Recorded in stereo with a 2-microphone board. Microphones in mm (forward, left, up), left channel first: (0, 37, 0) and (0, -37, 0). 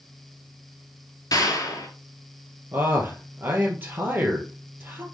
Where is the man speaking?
25° right (ahead or behind), 2.5 m.